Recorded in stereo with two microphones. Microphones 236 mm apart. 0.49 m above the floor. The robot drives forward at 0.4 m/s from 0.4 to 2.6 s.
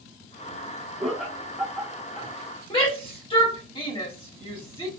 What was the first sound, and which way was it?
Laughter, centre (ahead or behind).